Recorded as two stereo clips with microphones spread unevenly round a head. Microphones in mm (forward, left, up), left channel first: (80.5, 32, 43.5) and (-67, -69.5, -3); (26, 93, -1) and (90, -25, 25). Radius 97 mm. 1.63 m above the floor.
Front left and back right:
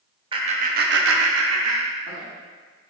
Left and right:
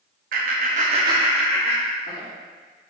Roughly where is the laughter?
Right.